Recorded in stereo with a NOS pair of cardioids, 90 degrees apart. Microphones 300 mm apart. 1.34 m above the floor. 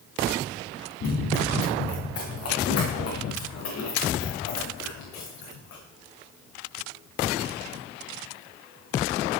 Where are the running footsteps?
50° left, 8 m; by 5.8 s 70° left, 8 m.